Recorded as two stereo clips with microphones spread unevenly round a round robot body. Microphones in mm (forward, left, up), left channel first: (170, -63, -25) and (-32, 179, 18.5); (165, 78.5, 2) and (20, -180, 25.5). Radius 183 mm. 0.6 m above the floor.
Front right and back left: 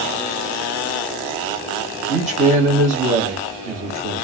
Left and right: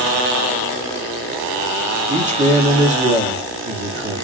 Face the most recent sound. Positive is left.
turn(degrees=-170)